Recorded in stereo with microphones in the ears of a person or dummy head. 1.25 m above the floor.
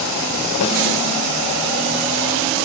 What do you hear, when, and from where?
0.6 s a snare drum: 85° left, 6 m